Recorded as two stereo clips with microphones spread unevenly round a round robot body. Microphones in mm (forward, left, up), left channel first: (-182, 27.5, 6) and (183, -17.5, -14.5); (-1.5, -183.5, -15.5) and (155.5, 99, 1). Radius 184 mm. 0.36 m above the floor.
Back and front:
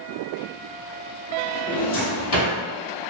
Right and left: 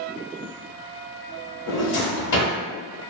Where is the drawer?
145° right, 1.1 m.